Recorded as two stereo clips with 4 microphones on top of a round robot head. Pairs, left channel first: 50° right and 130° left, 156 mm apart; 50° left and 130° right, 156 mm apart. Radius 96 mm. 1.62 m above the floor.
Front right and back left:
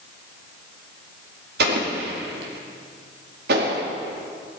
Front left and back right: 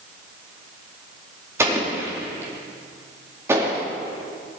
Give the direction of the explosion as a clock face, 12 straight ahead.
7 o'clock.